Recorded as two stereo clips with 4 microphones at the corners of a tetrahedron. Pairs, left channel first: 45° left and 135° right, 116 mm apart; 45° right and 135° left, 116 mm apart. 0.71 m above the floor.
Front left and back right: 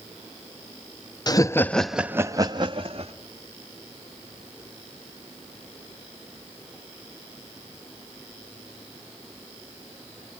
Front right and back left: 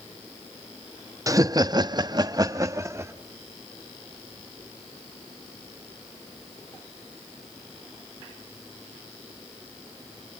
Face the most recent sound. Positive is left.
turn(degrees=-160)